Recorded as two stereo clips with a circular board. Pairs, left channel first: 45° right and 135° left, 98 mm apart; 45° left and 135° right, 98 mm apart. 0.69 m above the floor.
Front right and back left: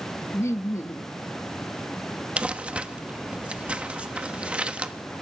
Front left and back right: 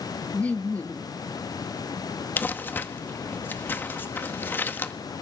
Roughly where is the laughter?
Ahead.